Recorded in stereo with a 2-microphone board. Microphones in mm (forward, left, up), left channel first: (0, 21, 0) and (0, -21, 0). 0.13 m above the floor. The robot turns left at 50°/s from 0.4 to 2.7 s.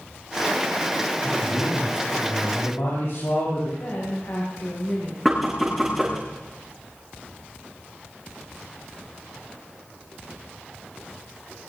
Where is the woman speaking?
65° left (ahead or behind), 6 m.